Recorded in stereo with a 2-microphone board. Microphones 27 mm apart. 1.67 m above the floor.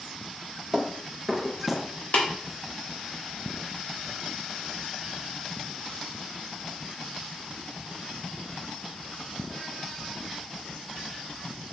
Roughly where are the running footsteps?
Centre.